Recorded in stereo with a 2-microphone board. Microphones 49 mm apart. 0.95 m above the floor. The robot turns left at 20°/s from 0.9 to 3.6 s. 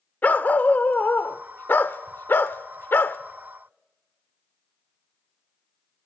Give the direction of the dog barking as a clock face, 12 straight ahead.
8 o'clock.